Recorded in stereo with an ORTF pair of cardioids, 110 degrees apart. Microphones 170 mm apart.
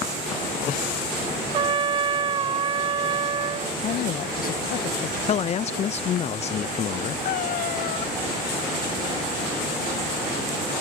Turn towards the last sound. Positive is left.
turn(degrees=60)